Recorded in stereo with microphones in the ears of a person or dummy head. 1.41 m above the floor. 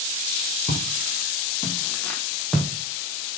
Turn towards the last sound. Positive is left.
turn(degrees=-5)  # may be behind; listen again after turning